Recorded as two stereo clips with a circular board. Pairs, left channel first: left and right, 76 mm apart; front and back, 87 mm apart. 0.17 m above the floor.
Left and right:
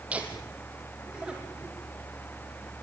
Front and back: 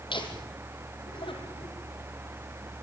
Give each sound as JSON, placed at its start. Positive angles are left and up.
{"t": 0.1, "sound": "laughter", "azimuth_deg": -15, "distance_m": 5.0}